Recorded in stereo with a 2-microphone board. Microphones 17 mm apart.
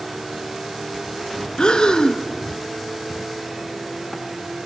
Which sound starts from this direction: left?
Breathing, at 1.6 s.